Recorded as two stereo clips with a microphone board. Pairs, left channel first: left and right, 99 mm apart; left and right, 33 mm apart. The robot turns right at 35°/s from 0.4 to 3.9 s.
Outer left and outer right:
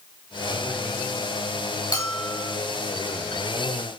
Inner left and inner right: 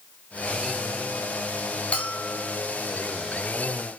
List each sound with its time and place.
1.9 s a bell: 40° left (ahead or behind), 1.8 m; by 2.5 s 30° left (ahead or behind), 1.8 m